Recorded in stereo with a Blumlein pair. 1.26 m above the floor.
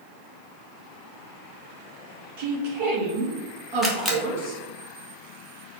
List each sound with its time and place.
2.4 s a woman speaking: 50° right, 1.8 m
3.8 s a camera shutter: 10° right, 1.1 m